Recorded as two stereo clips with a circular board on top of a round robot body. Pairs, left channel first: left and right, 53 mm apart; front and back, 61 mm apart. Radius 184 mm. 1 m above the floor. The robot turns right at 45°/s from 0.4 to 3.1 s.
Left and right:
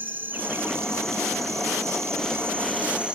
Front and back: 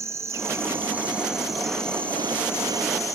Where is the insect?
145° right, 0.9 m; by 3.2 s 20° right, 0.9 m.